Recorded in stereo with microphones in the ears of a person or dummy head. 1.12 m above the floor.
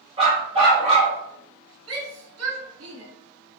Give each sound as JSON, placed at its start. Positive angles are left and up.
{"t": 0.2, "sound": "a dog barking", "side_deg": -35, "distance_m": 1.9}
{"t": 1.9, "sound": "a shout", "side_deg": -75, "distance_m": 2.5}